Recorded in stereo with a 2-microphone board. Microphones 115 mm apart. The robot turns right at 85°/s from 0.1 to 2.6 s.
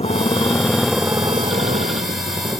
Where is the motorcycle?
120° left; by 2.6 s 30° right.